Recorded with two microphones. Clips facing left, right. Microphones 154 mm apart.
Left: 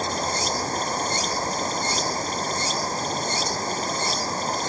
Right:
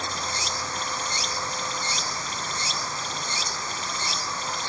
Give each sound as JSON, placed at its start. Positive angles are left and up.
{"t": 0.0, "sound": "running water", "side_deg": 40}